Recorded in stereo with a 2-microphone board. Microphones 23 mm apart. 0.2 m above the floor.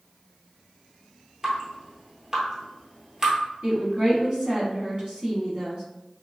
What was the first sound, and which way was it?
Dripping, 25° right (ahead or behind).